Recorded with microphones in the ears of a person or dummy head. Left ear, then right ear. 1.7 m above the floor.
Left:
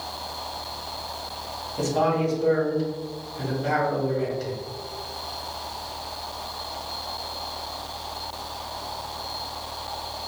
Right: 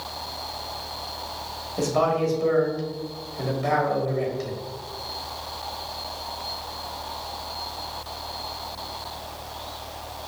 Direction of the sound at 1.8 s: 65° right (ahead or behind).